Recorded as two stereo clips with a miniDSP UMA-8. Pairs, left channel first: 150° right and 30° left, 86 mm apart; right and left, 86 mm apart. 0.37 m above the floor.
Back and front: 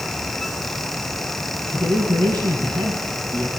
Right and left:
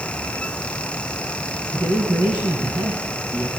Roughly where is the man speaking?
Left.